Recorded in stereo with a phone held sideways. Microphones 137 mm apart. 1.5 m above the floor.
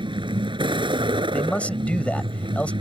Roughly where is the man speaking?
Centre.